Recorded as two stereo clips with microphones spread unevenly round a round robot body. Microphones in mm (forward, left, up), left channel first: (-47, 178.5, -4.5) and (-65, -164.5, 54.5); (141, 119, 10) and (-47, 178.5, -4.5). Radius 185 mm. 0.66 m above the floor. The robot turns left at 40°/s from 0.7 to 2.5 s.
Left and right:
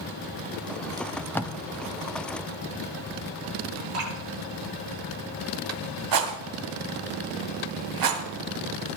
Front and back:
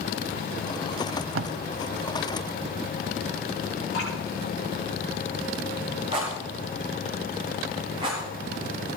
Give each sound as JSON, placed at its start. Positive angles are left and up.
{"t": 1.0, "sound": "tape being pulled", "azimuth_deg": -175, "distance_m": 0.7}
{"t": 3.9, "sound": "dripping", "azimuth_deg": -40, "distance_m": 6.0}
{"t": 6.1, "sound": "a rattle", "azimuth_deg": -120, "distance_m": 2.0}